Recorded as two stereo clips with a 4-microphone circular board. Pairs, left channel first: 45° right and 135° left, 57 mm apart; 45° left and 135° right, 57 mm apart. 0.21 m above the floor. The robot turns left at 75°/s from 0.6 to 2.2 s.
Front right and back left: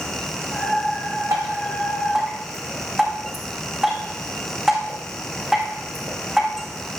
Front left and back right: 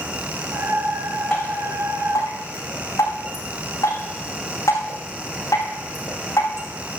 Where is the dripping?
120° left, 7.5 m; by 6.7 s 50° left, 7.5 m.